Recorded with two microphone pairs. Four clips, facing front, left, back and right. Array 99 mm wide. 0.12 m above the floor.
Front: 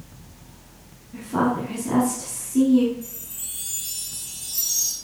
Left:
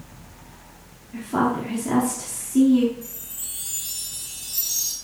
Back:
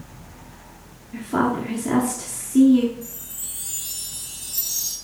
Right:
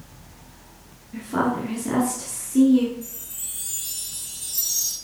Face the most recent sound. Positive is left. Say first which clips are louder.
# right 1 dB, back 1 dB
turn(degrees=-30)